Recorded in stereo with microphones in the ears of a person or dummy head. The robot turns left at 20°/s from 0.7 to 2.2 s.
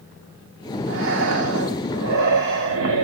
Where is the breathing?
65° right (ahead or behind), 2 m; by 3.0 s 60° right (ahead or behind), 2 m.